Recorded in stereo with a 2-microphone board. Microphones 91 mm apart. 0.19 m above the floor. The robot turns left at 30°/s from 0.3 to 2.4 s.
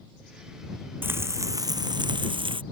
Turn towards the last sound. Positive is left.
turn(degrees=-65)